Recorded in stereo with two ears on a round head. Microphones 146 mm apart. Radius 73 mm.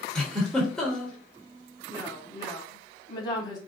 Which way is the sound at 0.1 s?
5° left (ahead or behind).